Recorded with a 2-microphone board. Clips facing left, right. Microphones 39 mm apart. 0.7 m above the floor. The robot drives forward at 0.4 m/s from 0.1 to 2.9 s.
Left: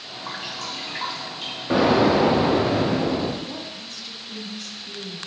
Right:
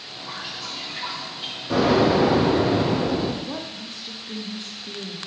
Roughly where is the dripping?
Left.